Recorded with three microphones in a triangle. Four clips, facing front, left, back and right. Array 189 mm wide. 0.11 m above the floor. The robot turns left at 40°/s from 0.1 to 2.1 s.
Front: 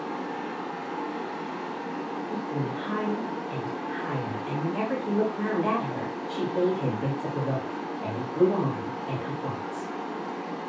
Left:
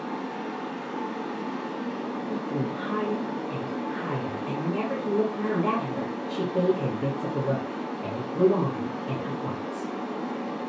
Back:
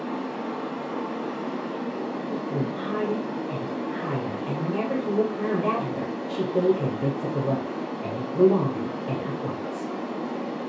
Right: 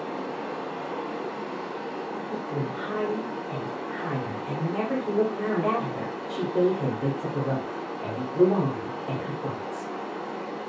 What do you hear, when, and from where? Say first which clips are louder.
0.0 s running water: even, back 2 dB; 130° right, 1.9 m; by 10.7 s 150° left, 1.9 m
2.3 s a woman speaking: left 2 dB, back 2 dB; 165° left, 1.3 m